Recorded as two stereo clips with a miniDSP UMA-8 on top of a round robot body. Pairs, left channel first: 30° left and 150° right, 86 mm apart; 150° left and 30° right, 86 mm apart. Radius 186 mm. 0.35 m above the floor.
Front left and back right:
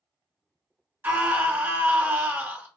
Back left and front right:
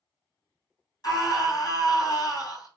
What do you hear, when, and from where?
1.0 s a scream: 150° left, 2.0 m